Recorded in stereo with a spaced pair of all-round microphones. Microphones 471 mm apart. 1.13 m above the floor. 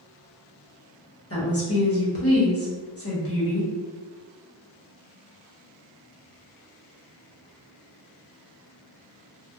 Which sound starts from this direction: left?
A woman speaking, at 1.3 s.